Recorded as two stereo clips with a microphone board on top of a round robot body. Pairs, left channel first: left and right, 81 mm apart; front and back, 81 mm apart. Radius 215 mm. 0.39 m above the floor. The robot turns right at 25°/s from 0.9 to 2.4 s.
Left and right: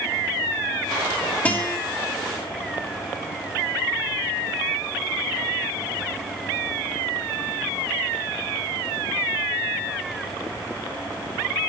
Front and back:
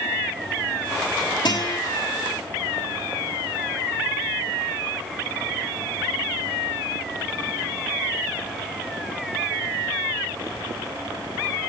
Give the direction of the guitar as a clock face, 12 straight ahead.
11 o'clock.